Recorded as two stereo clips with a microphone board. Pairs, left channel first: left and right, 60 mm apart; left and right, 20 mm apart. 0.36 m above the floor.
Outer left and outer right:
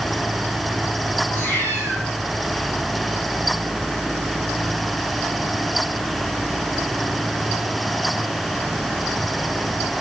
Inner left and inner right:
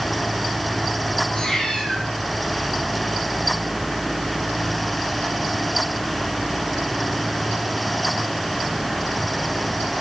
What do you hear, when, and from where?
1.3 s a cat meowing: 35° left (ahead or behind), 4 m